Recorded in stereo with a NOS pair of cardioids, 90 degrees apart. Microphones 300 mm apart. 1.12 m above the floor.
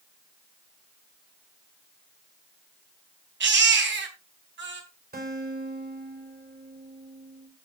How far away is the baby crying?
About 3.5 m.